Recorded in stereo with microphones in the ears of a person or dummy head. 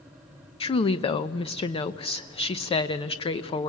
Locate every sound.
0.6 s a woman speaking: 25° left (ahead or behind), 0.6 m